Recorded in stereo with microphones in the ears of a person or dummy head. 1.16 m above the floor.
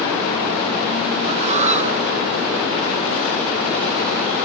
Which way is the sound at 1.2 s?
35° right (ahead or behind).